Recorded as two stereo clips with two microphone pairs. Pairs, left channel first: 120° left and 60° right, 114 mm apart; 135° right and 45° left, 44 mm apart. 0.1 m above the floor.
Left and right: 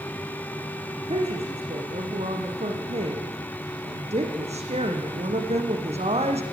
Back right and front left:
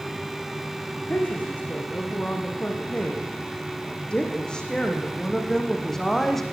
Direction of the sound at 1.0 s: 85° right.